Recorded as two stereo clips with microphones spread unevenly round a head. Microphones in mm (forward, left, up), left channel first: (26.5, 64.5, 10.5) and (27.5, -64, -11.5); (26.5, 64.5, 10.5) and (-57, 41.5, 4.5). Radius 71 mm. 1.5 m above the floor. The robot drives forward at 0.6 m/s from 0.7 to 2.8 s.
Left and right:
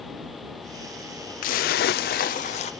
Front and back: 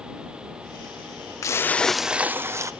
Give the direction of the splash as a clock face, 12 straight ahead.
10 o'clock.